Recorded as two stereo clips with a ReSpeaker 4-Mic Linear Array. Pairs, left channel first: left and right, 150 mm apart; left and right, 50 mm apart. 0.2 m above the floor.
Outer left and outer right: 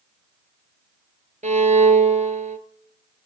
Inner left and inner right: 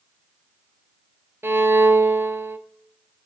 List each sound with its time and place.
1.4 s a violin: 55° right (ahead or behind), 0.9 m